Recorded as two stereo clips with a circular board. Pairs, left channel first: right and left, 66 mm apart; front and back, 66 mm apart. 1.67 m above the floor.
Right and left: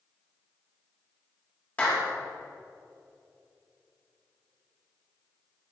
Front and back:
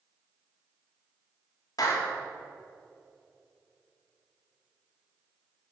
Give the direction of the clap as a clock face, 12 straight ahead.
1 o'clock.